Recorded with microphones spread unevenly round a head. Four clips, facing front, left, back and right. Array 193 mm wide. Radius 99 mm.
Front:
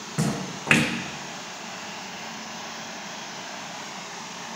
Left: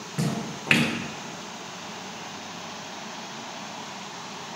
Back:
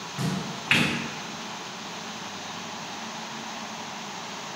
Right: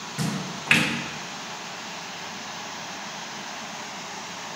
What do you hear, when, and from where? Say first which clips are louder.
0.2 s a splash: left 1 dB, front 3 dB; 20° left, 0.7 m